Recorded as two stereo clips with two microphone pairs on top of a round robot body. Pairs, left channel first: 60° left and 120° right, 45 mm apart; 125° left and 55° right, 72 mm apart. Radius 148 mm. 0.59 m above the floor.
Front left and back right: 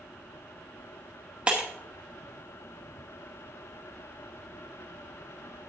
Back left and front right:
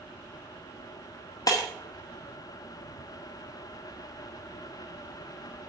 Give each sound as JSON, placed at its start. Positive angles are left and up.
{"t": 1.5, "sound": "breaking glass", "azimuth_deg": 170, "distance_m": 0.8}